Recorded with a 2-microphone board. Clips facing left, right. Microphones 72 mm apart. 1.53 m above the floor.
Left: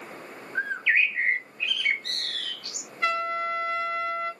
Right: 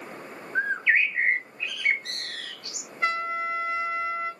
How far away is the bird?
About 0.6 m.